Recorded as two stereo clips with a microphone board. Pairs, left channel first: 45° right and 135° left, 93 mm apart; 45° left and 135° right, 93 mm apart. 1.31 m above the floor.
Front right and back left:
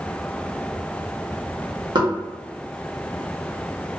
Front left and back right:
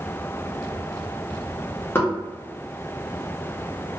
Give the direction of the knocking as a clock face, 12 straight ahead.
8 o'clock.